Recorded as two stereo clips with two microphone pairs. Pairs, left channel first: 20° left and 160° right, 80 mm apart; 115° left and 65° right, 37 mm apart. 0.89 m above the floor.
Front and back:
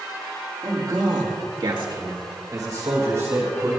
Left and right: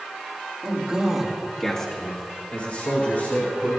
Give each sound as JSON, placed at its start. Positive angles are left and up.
{"t": 0.6, "sound": "a man speaking", "azimuth_deg": -120, "distance_m": 2.0}